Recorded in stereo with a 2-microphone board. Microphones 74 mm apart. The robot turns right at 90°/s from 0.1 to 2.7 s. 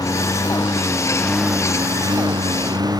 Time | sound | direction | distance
0.0 | a lawn mower | 60° left | ?